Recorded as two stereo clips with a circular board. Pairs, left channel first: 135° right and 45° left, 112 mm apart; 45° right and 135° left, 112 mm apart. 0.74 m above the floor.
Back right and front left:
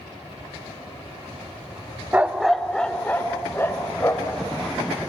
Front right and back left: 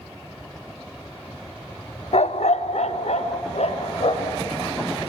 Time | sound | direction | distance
2.1 | a dog barking | 30° right | 0.6 m